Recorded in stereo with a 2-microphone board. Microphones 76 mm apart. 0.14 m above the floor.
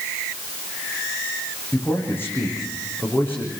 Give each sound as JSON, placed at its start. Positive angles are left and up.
{"t": 1.7, "sound": "a man speaking", "side_deg": 30, "distance_m": 8.5}